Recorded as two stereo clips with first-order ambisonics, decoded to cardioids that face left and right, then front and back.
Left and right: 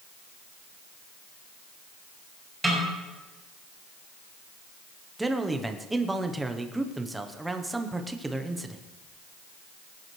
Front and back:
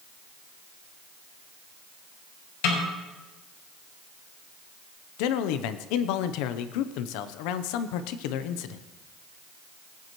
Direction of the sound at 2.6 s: Straight ahead.